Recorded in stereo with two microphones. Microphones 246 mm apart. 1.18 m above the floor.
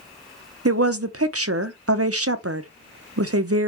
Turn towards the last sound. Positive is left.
turn(degrees=-70)  # may be behind; listen again after turning